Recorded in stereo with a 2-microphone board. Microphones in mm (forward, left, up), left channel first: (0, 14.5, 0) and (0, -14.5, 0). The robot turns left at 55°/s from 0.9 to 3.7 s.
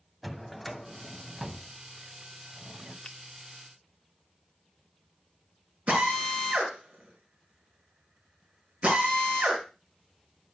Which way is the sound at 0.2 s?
10° left.